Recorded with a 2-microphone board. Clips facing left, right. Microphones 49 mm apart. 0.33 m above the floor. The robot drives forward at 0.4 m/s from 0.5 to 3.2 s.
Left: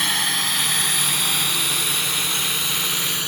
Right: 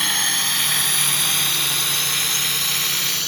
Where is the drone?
Centre (ahead or behind); by 3.3 s 15° left (ahead or behind).